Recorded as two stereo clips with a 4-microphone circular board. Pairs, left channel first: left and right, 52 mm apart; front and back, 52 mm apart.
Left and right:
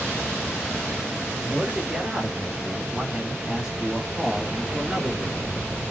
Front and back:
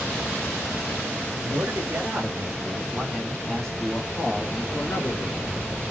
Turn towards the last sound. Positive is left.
turn(degrees=-5)